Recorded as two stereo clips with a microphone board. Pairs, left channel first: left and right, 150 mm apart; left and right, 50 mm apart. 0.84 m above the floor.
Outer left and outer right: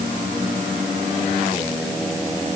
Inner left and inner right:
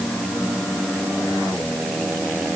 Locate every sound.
Only background noise.